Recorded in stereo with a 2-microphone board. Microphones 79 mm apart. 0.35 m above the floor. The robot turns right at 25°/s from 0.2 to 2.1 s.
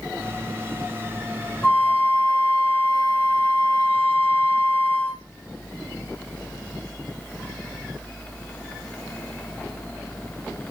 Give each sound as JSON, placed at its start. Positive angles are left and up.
{"t": 1.6, "sound": "a flute", "side_deg": 25, "distance_m": 1.7}